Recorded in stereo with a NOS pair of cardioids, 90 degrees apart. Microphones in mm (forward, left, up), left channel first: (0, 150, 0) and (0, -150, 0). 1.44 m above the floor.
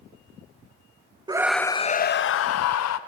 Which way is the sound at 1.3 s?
15° right.